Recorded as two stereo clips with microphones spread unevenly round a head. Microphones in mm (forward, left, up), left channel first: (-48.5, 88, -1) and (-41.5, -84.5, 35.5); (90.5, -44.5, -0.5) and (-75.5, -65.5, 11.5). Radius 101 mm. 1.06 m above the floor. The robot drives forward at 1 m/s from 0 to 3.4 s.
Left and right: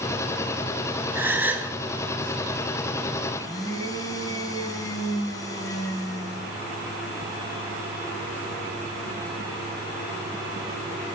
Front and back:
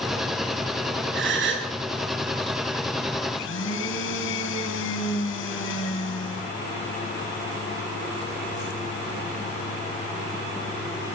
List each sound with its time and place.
1.1 s a gasp: 165° right, 5.5 m
3.3 s a blender: 20° left, 6 m